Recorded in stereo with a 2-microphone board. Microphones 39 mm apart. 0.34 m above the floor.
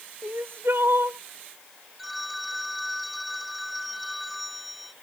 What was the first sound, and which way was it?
Crying, 65° right (ahead or behind).